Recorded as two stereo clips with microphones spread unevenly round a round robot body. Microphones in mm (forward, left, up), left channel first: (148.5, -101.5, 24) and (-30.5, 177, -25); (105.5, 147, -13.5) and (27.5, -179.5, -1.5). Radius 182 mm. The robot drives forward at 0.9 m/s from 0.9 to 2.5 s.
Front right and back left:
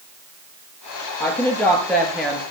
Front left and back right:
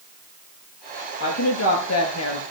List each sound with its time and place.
1.2 s a woman speaking: 30° left, 7 m